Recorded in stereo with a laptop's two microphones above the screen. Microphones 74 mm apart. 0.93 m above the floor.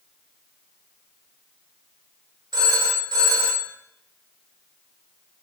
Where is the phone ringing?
80° right, 1.5 m.